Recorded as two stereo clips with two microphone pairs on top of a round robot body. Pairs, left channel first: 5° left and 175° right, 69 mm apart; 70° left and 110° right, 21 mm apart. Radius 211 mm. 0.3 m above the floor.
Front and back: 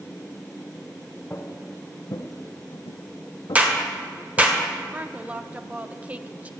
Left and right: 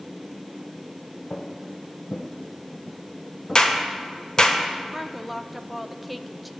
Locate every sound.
1.3 s footsteps: 80° left, 1.4 m; by 4.5 s 10° right, 1.9 m
3.5 s a clap: 120° left, 1.7 m
4.9 s a woman speaking: 155° left, 0.9 m